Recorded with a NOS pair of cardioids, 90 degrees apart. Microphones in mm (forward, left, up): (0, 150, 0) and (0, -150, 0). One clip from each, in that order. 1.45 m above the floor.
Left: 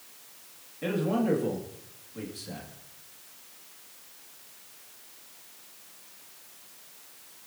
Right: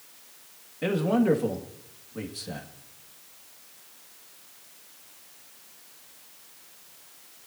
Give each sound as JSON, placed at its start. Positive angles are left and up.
{"t": 0.8, "sound": "a man speaking", "azimuth_deg": -40, "distance_m": 2.5}